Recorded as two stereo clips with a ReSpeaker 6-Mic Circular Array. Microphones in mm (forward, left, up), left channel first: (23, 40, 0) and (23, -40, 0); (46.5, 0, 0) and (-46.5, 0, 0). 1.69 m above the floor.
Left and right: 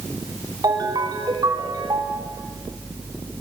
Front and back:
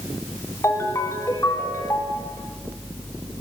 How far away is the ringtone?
About 4 m.